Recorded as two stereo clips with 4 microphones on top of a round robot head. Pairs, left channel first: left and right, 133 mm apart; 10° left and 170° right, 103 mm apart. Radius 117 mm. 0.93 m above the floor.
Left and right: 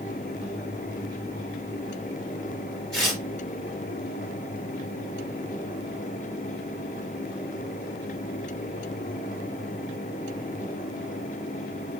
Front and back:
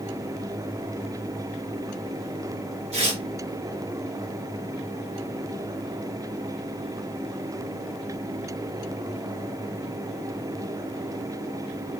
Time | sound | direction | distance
2.9 | tearing paper | 175° left | 3 m